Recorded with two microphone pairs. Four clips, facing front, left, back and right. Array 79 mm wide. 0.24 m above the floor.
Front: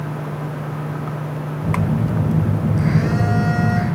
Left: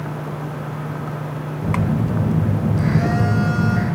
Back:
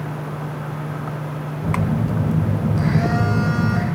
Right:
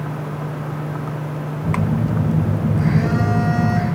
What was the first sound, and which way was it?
A phone buzzing, 165° left.